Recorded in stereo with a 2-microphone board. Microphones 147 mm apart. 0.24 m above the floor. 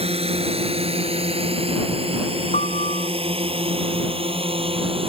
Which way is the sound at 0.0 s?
40° right (ahead or behind).